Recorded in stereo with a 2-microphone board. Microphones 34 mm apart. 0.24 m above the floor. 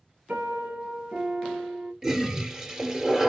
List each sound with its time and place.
0.3 s a piano: 70° right (ahead or behind), 2 m
2.0 s a toilet flushing: 15° right (ahead or behind), 1.0 m